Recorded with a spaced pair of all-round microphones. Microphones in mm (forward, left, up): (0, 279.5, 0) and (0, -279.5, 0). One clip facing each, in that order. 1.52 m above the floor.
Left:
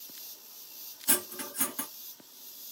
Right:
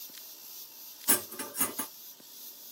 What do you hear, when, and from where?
1.1 s cutlery clinking: centre (ahead or behind), 1.7 m